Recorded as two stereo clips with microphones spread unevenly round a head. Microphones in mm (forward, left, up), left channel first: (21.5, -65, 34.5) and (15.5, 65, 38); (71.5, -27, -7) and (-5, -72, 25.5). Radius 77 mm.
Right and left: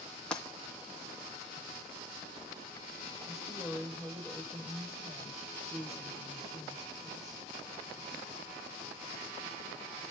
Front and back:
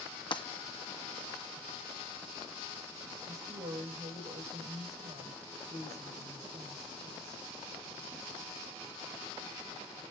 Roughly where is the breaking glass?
Ahead.